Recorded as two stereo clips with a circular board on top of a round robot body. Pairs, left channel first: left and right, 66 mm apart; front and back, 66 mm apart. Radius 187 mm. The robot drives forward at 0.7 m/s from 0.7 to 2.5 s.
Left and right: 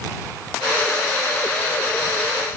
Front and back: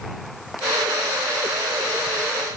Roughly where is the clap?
No clap in this recording.